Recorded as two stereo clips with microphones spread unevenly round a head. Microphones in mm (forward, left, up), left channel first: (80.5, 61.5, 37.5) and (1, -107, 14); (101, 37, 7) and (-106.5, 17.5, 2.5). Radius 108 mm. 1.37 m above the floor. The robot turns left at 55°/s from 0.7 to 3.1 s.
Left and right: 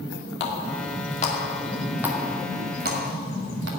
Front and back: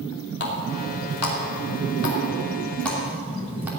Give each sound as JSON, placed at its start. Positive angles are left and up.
{"t": 0.4, "sound": "a running tap", "azimuth_deg": 40, "distance_m": 2.5}